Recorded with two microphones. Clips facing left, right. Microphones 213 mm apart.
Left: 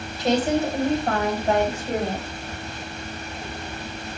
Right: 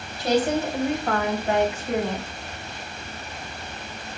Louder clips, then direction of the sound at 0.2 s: Left 1 dB; 25° left (ahead or behind).